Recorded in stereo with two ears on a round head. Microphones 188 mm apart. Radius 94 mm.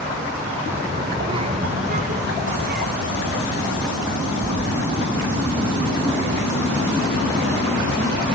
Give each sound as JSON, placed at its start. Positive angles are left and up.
{"t": 0.7, "sound": "a child speaking", "side_deg": -10, "distance_m": 2.0}